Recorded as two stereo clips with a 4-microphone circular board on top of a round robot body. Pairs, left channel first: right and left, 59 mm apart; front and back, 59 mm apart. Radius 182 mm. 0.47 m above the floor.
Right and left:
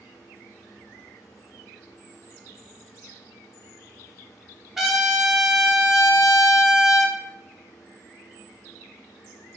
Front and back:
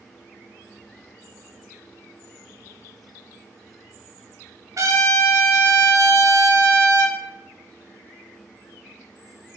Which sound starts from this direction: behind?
A trumpet, at 4.8 s.